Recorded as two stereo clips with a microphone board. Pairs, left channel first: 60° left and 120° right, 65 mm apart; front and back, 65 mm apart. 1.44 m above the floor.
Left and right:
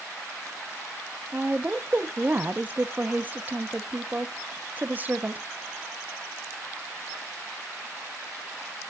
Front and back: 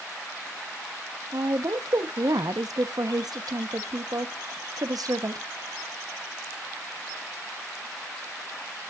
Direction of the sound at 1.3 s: Straight behind.